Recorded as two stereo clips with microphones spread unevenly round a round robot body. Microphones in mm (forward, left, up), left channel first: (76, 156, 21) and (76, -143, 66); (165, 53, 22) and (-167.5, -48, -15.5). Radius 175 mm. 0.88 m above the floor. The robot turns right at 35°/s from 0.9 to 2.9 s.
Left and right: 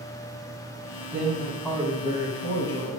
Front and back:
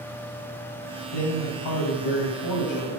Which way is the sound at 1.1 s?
10° right.